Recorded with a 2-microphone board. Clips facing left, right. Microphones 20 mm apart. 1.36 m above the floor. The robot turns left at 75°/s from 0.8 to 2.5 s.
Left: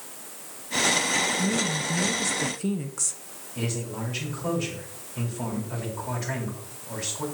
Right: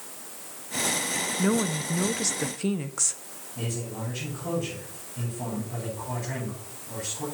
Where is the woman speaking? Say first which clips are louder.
Even; 75° right, 0.6 m; by 3.2 s 160° right, 0.6 m.